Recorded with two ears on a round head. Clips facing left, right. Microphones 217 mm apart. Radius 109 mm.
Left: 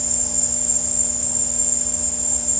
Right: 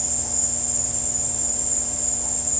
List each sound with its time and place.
0.0 s an insect: 10° left (ahead or behind), 3 m